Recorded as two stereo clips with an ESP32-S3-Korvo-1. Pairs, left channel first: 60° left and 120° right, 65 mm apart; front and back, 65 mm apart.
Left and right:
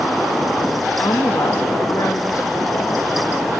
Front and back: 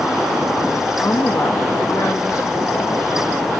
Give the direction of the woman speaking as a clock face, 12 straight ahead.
11 o'clock.